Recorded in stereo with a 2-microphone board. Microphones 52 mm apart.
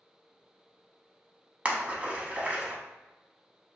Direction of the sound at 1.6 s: 25° right (ahead or behind).